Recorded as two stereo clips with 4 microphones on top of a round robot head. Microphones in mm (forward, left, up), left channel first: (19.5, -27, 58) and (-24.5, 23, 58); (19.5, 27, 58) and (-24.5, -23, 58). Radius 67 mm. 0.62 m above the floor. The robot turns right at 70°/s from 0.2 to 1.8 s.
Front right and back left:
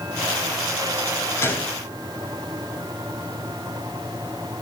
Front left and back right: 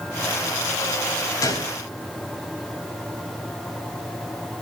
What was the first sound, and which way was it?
A gunshot, 5° left.